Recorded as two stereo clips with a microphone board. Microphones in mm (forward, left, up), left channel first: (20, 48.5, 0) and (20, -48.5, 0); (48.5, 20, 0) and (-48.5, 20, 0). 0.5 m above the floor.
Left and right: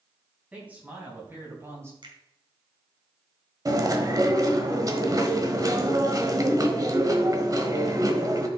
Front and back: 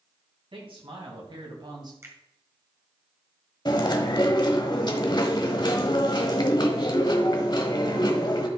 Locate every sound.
0.5 s a man speaking: 165° right, 4 m; by 1.9 s 145° right, 2.5 m
2.0 s a finger snap: 120° right, 1.9 m
3.6 s chewing: 40° right, 1.1 m